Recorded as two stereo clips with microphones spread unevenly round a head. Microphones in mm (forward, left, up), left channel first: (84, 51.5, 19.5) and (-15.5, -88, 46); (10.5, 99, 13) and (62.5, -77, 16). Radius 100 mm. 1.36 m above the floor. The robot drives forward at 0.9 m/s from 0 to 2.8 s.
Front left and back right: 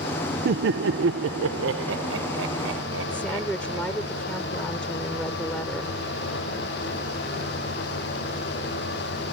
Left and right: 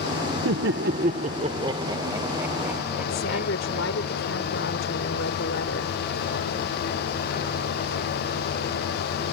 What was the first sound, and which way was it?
Laughter, 95° right.